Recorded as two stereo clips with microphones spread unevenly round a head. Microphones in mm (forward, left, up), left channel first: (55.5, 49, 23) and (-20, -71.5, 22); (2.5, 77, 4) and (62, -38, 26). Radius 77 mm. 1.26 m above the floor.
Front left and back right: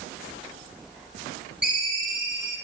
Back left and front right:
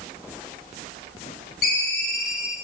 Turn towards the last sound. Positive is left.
turn(degrees=155)